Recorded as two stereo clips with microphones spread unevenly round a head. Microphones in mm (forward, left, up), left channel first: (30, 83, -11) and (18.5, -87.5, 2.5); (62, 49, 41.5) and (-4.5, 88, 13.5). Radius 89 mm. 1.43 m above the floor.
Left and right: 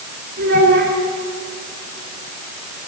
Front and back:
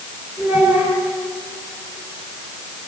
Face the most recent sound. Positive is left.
turn(degrees=-125)